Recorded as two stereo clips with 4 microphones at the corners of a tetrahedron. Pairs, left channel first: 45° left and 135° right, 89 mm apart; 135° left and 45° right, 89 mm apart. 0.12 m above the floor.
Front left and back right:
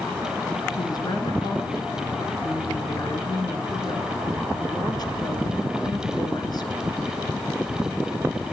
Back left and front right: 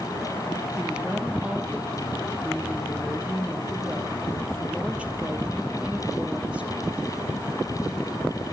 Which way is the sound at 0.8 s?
30° left.